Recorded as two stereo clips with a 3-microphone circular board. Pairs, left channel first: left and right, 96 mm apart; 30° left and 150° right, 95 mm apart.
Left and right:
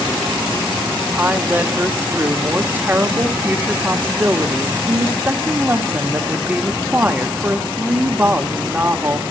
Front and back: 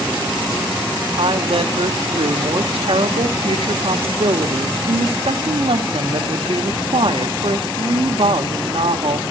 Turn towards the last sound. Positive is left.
turn(degrees=-160)